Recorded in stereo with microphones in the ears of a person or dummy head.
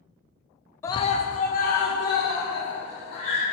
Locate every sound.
0.8 s a scream: 10° left (ahead or behind), 0.5 m; by 3.4 s 50° left (ahead or behind), 3.5 m